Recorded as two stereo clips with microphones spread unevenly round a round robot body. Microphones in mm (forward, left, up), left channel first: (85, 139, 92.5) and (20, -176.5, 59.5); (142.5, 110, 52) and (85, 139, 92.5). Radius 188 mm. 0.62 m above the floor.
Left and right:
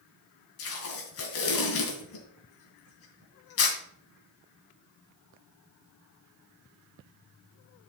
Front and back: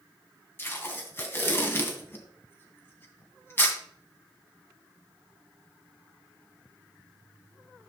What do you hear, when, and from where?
0.6 s tape being pulled: 30° left, 2.5 m